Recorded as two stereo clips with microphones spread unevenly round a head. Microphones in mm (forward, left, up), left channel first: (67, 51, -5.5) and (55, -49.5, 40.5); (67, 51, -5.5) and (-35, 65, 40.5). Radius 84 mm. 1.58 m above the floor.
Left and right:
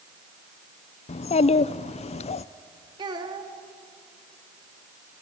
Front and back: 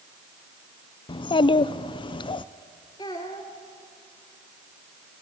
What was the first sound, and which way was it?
A child speaking, 50° left.